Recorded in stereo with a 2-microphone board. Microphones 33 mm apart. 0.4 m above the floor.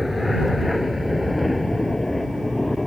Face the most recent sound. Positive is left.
turn(degrees=0)  # may be behind; listen again after turning